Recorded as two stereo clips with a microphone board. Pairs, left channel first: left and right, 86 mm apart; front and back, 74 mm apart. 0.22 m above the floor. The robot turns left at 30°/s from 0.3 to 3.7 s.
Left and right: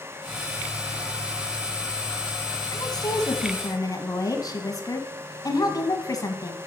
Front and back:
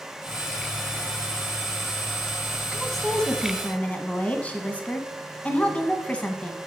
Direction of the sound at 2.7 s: 95° left.